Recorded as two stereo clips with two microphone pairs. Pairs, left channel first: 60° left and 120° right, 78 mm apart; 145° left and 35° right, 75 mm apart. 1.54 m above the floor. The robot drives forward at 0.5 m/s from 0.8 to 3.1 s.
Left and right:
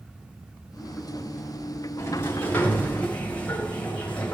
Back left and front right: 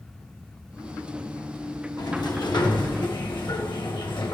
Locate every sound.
2.0 s a sliding door: 120° left, 1.4 m; by 4.3 s 135° left, 1.7 m